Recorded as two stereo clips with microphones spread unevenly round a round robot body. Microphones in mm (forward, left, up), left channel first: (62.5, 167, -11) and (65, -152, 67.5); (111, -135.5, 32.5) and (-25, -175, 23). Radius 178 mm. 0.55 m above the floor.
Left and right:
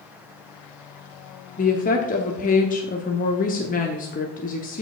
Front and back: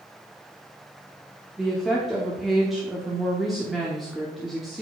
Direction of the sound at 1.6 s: 110° left.